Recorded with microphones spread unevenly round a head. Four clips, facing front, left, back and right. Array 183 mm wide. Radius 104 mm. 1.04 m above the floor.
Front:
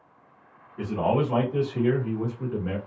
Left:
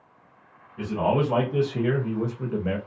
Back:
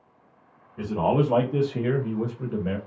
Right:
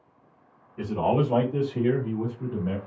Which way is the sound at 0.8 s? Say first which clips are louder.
Left 1 dB, back 1 dB; 175° right.